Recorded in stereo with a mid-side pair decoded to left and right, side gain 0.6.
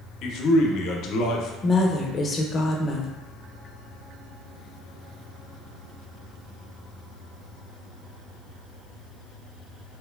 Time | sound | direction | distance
0.2 | a man speaking | 60° left | 0.5 m
1.6 | a woman speaking | 30° left | 0.6 m